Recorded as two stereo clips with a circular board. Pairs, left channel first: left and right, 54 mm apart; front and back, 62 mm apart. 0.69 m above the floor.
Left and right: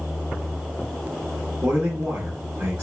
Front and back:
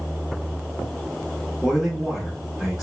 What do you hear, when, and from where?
1.6 s a man speaking: 95° right, 1.6 m